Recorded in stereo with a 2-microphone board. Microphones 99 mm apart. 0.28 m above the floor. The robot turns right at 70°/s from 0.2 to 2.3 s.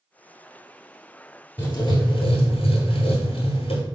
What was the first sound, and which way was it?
Writing, 25° left.